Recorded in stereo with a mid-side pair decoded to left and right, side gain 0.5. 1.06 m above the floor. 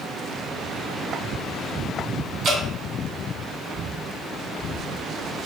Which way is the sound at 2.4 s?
60° right.